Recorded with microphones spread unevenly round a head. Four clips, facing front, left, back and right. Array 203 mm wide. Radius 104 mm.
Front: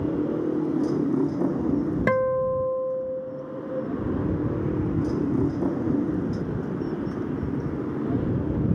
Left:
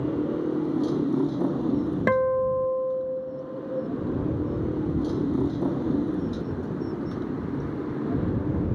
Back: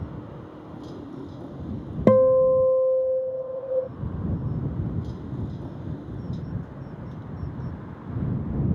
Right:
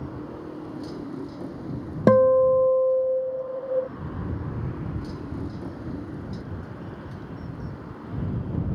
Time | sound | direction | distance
0.0 | a motorcycle | 35° left | ?
2.1 | a guitar | 140° right | ?